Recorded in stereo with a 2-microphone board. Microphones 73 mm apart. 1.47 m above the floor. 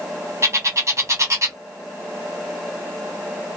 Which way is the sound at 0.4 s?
40° right (ahead or behind).